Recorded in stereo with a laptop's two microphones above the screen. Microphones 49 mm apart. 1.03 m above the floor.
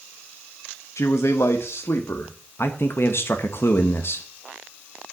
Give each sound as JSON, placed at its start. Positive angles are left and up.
{"t": 1.0, "sound": "a man speaking", "side_deg": 80, "distance_m": 0.8}
{"t": 2.6, "sound": "a man speaking", "side_deg": 55, "distance_m": 1.1}